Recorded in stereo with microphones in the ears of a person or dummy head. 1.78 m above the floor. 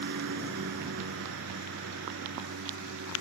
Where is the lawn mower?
55° right (ahead or behind); by 3.2 s 65° right (ahead or behind).